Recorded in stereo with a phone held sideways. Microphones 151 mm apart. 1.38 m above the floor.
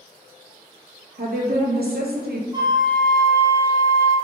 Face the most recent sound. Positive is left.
turn(degrees=-25)  # may be behind; listen again after turning